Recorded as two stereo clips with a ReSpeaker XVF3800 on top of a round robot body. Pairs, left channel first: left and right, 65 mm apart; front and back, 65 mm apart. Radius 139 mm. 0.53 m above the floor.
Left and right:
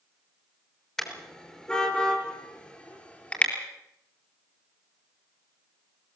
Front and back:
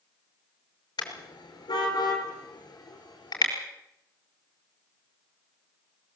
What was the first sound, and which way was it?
A car horn, 10° left.